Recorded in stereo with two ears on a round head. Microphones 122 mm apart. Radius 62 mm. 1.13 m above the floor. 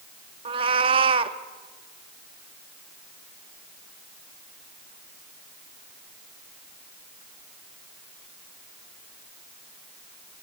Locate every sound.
0.5 s a cat meowing: 40° right (ahead or behind), 0.9 m